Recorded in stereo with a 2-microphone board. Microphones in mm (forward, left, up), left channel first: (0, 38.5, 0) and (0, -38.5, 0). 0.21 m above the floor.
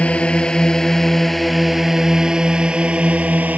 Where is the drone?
15° left (ahead or behind); by 3.6 s 20° right (ahead or behind).